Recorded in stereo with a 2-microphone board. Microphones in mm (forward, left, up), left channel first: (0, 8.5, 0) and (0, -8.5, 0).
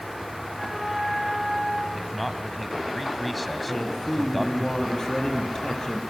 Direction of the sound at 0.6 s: 25° right (ahead or behind).